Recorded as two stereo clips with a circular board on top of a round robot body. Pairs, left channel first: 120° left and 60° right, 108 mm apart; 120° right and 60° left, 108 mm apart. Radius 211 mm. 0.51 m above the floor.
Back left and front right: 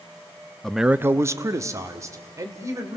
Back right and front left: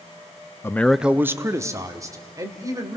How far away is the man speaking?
About 0.8 m.